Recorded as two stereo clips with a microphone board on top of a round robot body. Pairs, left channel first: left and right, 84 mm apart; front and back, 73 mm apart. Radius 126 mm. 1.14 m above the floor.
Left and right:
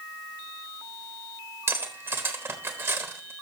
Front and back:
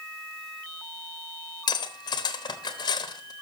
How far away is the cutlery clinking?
About 1.0 m.